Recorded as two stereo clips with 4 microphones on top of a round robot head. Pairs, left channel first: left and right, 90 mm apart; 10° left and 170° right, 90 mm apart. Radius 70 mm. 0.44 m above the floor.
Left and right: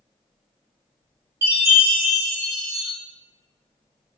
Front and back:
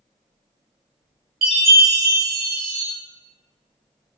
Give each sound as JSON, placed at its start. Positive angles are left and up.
{"t": 1.4, "sound": "a chime", "azimuth_deg": -165, "distance_m": 2.0}